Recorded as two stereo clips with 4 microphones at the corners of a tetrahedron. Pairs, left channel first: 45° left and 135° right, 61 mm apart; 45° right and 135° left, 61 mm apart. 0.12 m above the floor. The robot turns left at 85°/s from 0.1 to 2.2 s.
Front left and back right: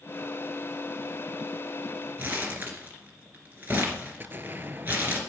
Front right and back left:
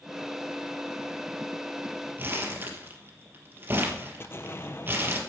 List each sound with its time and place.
2.2 s crumpling: 175° left, 2.5 m
4.2 s an explosion: 85° right, 0.8 m